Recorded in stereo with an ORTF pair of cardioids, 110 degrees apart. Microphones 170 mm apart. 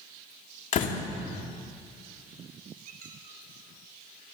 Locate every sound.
0.7 s a door slam: 50° left, 3 m
2.9 s a squeak: 60° right, 4 m